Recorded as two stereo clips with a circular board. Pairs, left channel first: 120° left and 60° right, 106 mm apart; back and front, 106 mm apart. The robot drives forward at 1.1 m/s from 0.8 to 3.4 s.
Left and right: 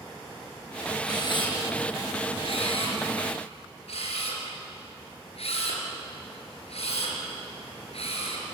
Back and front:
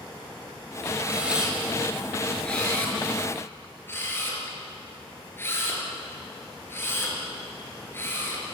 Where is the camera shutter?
75° left, 4 m; by 8.4 s 115° left, 4 m.